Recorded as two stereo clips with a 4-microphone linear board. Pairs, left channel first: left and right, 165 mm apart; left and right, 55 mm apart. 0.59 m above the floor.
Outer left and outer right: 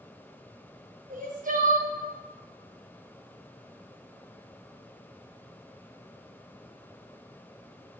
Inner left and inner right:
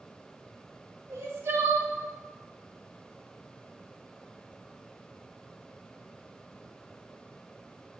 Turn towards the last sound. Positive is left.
turn(degrees=-60)  # may be behind; listen again after turning